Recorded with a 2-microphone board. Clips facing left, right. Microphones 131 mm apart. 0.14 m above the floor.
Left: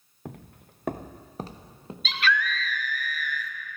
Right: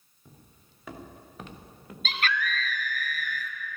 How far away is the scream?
About 1.8 m.